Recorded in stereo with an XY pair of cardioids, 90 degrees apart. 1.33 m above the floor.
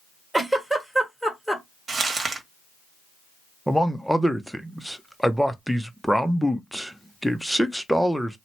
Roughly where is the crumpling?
Ahead right.